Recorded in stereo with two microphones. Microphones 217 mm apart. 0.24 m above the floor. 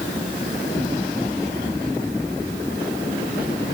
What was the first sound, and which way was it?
Only background noise.